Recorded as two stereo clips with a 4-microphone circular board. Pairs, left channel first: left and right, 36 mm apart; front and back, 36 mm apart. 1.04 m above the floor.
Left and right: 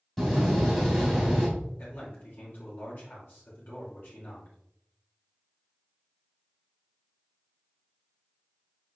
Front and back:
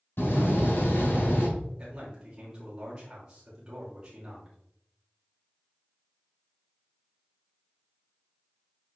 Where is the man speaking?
115° left, 2.5 m.